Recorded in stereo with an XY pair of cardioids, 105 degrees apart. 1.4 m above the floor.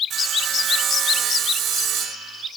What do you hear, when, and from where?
0.1 s sawing: 65° right, 6.5 m